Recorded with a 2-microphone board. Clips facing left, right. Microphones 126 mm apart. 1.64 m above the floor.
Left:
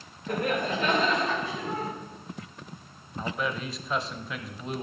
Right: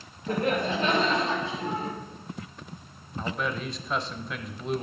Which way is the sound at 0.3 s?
30° right (ahead or behind).